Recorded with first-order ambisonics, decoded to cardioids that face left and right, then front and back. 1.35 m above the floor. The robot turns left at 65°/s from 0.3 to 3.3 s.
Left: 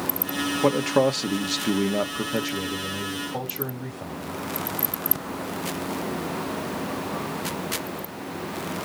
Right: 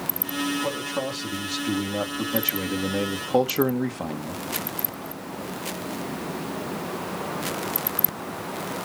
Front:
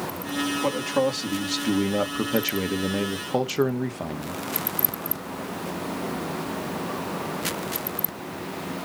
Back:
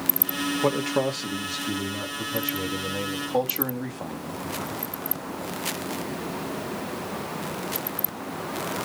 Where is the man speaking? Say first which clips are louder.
Left 7 dB, even; 125° left, 1.9 m; by 4.4 s 50° right, 1.9 m.